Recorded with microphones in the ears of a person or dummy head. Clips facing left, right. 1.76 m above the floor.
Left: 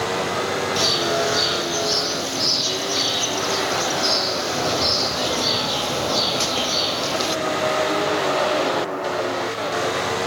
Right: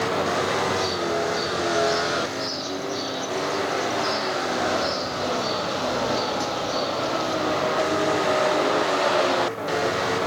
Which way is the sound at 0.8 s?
90° left.